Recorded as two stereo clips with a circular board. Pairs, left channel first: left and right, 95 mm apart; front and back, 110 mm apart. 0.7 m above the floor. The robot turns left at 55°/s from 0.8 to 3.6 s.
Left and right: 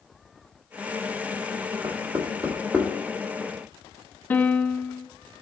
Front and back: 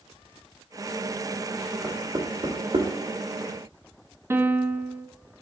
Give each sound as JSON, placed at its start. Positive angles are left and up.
{"t": 1.8, "sound": "knocking", "azimuth_deg": -115, "distance_m": 1.6}
{"t": 4.3, "sound": "a piano", "azimuth_deg": 140, "distance_m": 0.5}